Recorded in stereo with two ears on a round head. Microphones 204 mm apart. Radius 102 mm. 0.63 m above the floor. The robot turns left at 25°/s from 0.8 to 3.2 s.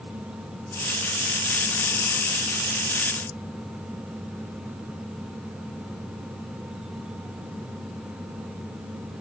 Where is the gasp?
No gasp in this recording.